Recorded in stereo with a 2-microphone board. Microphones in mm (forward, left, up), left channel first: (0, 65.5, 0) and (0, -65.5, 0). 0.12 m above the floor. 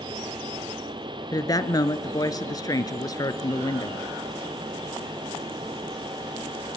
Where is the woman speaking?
25° left (ahead or behind), 1.4 m.